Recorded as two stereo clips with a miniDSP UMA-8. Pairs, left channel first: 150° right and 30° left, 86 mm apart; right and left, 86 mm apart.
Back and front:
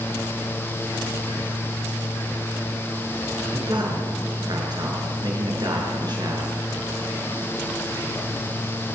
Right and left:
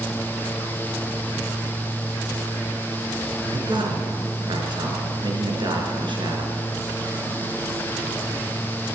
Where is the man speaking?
65° left, 5 m.